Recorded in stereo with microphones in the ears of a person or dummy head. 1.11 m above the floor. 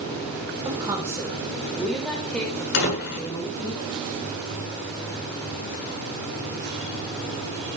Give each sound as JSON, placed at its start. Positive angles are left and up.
{"t": 0.7, "sound": "a woman speaking", "side_deg": -20, "distance_m": 3.0}
{"t": 2.7, "sound": "a door slam", "side_deg": 55, "distance_m": 8.5}